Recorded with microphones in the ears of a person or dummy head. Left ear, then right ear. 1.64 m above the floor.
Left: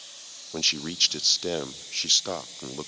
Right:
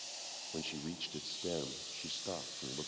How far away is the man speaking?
About 0.5 m.